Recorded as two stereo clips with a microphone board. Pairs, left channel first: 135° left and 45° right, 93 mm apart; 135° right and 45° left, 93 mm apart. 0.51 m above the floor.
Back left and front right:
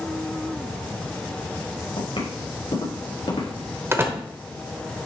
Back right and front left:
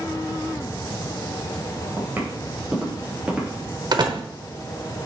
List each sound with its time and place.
2.0 s footsteps: 115° left, 4 m; by 3.7 s 130° left, 4 m
3.9 s a door slam: 15° left, 1.0 m